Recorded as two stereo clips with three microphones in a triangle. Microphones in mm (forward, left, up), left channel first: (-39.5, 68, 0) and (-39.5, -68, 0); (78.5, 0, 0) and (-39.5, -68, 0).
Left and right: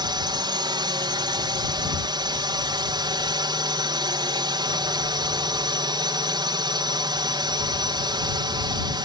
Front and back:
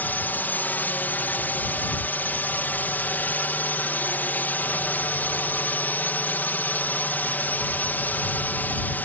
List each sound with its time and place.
0.0 s a drone: 45° right